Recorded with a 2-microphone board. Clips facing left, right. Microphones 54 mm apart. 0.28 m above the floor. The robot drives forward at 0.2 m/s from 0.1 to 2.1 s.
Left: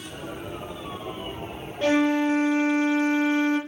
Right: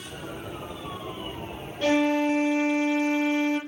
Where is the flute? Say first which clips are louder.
Left 1 dB; 25° left (ahead or behind), 1.3 m.